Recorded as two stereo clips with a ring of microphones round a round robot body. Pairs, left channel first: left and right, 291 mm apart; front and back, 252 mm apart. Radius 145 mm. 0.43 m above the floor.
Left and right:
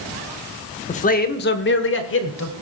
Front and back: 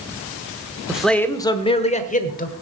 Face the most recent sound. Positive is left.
turn(degrees=50)